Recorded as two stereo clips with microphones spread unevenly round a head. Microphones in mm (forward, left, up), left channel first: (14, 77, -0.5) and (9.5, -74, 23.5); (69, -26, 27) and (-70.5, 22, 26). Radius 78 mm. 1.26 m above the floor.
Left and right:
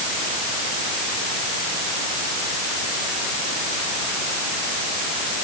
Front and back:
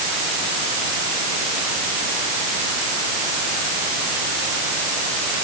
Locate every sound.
Only background noise.